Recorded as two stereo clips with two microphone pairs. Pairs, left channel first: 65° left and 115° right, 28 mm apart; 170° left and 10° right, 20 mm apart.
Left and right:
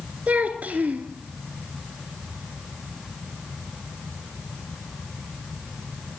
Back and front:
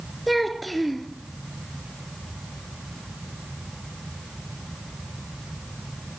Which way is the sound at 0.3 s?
100° right.